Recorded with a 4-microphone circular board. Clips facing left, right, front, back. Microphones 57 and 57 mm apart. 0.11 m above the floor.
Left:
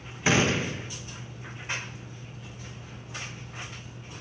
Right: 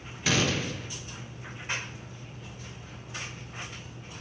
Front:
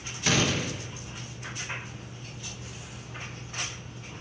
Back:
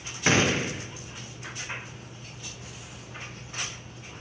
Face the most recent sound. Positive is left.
turn(degrees=140)